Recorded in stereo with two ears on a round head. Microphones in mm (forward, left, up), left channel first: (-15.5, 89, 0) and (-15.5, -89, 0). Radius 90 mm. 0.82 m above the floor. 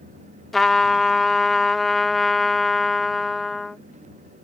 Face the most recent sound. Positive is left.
turn(degrees=0)  # may be behind; listen again after turning